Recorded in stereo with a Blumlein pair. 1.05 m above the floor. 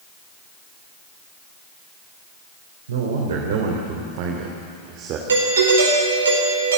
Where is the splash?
No splash in this recording.